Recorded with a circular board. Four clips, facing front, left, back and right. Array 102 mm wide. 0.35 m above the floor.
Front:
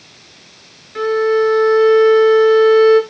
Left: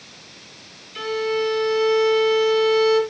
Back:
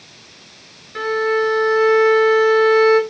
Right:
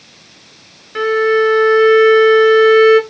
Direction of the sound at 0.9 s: 95° right.